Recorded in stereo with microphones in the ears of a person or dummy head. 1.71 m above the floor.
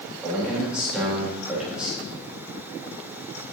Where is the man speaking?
Centre (ahead or behind), 4 m.